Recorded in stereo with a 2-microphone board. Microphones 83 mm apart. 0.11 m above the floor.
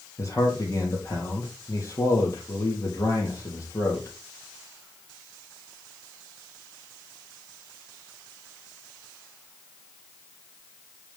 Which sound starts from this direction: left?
A man speaking, at 0.2 s.